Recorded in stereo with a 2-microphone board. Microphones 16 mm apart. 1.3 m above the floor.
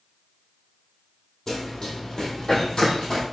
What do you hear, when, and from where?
1.5 s running footsteps: 40° left (ahead or behind), 1.6 m